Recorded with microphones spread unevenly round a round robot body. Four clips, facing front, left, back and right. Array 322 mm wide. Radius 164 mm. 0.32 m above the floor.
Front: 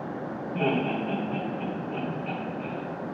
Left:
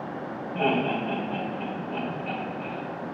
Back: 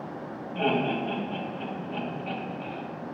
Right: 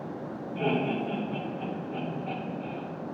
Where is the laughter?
40° left, 1.1 m.